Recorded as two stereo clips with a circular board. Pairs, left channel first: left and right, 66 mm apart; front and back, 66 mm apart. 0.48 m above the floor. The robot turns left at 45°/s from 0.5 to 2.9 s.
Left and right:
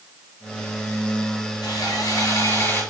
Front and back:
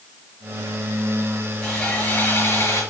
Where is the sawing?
90° left, 5.5 m; by 2.8 s 35° left, 5.5 m.